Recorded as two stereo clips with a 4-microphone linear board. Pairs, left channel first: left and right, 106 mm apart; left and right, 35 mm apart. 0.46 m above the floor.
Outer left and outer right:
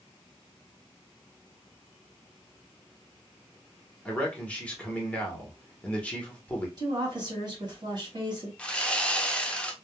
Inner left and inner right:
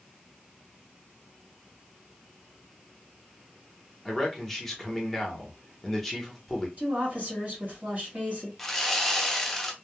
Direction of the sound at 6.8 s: 45° right (ahead or behind).